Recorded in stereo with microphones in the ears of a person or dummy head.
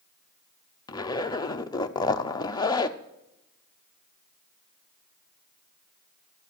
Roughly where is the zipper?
Centre.